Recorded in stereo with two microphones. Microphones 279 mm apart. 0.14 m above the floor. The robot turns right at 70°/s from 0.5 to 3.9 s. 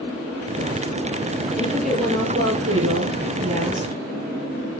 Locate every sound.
1.6 s a woman speaking: 160° left, 3.5 m; by 4.0 s 40° right, 3.5 m